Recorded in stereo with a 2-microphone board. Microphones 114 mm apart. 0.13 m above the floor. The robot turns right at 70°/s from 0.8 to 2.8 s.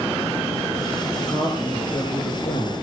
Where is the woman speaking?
30° right, 4 m; by 2.7 s 80° left, 4 m.